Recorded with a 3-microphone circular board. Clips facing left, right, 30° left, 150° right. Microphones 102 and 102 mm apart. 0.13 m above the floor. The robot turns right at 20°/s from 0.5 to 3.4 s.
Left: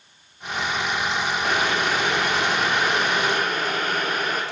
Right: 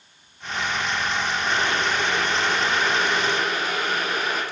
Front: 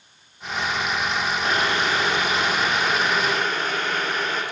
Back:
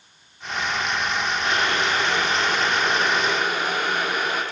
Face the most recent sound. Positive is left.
turn(degrees=125)